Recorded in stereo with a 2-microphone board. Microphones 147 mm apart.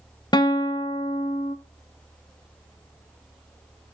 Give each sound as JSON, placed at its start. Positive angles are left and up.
{"t": 0.3, "sound": "a guitar", "side_deg": 30, "distance_m": 0.6}